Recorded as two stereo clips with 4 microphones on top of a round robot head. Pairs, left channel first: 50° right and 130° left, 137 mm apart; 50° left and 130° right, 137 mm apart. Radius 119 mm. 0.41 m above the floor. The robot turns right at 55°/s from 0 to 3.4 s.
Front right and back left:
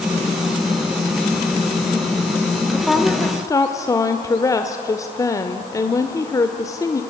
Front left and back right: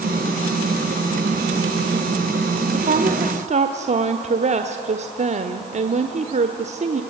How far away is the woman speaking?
About 1.3 m.